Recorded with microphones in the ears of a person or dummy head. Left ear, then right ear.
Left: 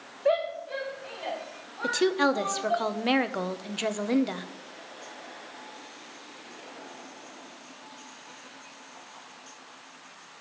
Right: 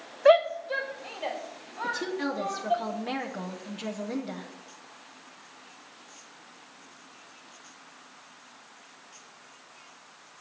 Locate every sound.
0.2 s a shout: 40° right (ahead or behind), 0.9 m; by 2.8 s 15° right (ahead or behind), 4.5 m
1.8 s a woman speaking: 25° left (ahead or behind), 0.8 m